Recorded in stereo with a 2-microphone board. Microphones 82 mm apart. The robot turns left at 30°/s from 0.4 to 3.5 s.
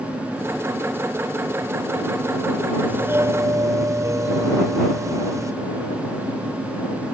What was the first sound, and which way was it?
A doorbell, 25° right (ahead or behind).